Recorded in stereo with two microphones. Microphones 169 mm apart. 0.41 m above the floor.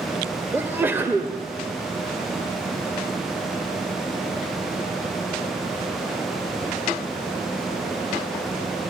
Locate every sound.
0.5 s a sneeze: 10° right (ahead or behind), 1.5 m